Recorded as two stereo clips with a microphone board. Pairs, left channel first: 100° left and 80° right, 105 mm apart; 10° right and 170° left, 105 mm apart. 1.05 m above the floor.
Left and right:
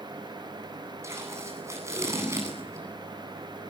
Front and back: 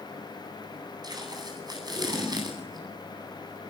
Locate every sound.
1.0 s tape being pulled: 140° right, 9.5 m